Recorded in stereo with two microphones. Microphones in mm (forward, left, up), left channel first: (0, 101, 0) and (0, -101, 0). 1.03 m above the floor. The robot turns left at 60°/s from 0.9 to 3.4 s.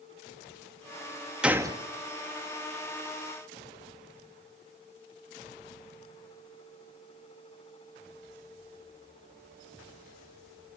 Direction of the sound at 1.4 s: 5° right (ahead or behind).